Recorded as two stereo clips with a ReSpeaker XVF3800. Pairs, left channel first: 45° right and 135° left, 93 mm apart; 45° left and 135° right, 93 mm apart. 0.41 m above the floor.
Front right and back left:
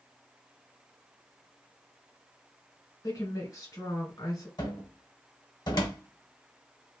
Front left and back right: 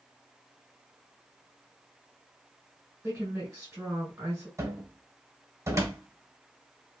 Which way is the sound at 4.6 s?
80° right.